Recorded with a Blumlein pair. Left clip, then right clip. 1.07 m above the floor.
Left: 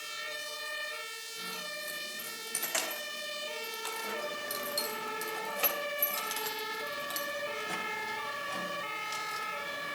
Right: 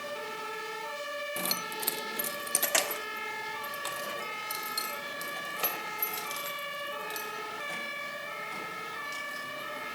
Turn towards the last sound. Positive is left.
turn(degrees=10)